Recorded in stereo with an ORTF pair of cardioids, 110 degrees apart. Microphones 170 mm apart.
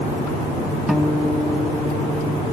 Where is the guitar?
5° right, 2.5 m.